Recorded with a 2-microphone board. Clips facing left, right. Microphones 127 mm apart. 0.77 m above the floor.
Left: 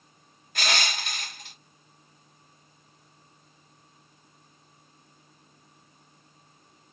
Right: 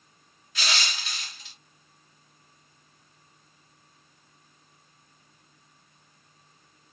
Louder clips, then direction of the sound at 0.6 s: Left 3 dB; 50° left (ahead or behind).